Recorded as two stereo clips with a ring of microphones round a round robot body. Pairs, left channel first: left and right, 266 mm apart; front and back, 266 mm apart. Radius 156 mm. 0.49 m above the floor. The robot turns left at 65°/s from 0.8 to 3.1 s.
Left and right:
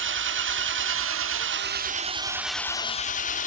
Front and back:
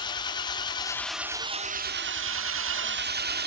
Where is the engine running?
70° right, 1.3 m; by 3.5 s 140° left, 1.3 m.